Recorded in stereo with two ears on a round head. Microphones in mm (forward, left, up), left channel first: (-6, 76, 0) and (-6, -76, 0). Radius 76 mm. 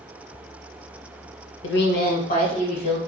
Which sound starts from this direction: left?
A woman speaking, at 1.6 s.